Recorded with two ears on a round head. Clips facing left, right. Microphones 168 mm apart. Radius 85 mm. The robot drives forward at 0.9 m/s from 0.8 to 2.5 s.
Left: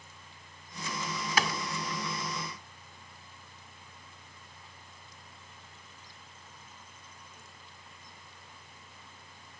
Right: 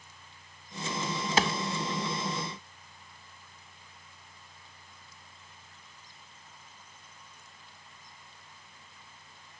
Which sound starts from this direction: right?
A clap, at 1.4 s.